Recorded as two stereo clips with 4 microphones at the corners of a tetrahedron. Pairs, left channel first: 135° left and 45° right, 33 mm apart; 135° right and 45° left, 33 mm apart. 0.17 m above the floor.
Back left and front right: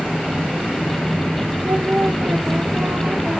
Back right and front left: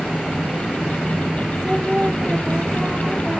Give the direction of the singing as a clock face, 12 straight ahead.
1 o'clock.